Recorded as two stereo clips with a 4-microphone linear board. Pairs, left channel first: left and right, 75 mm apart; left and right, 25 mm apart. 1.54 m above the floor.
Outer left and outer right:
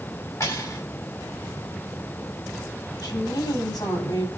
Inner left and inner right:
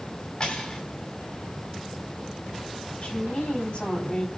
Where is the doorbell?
No doorbell in this recording.